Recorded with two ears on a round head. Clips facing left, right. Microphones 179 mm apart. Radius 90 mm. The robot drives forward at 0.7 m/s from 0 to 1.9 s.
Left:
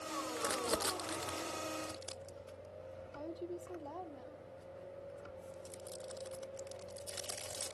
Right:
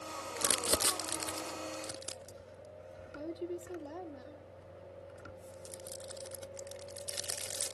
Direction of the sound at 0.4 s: 40° right (ahead or behind).